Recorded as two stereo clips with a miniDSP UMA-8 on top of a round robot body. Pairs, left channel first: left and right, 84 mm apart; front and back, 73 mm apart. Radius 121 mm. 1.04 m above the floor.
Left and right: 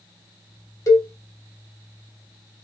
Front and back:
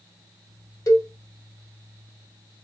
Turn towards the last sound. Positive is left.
turn(degrees=40)